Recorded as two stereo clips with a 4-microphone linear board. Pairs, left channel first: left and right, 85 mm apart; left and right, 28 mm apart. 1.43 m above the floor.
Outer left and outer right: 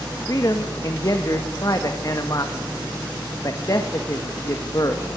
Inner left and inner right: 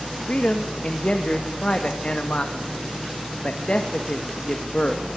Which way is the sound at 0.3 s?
40° left (ahead or behind).